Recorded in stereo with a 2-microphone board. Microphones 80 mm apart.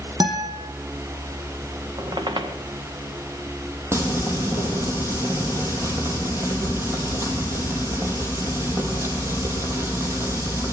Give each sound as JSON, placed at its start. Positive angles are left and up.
{"t": 0.2, "sound": "a guitar", "side_deg": -60, "distance_m": 5.5}
{"t": 2.0, "sound": "a squeak", "side_deg": -65, "distance_m": 2.5}
{"t": 3.9, "sound": "frying", "side_deg": -35, "distance_m": 4.5}